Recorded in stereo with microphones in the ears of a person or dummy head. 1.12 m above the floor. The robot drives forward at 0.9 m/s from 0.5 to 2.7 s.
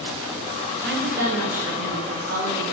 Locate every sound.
0.8 s a woman speaking: 55° right (ahead or behind), 0.9 m; by 2.6 s 20° right (ahead or behind), 1.9 m